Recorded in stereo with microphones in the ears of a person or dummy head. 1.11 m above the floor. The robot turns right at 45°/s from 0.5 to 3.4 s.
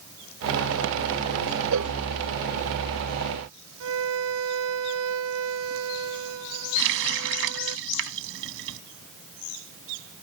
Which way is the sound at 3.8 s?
75° right (ahead or behind).